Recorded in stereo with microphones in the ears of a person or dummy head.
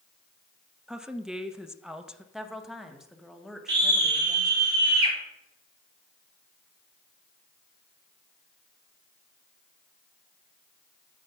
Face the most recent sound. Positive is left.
turn(degrees=-25)  # may be behind; listen again after turning